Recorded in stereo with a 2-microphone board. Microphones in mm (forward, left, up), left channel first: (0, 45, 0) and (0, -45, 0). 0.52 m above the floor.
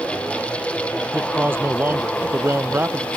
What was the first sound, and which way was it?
A man speaking, 20° right (ahead or behind).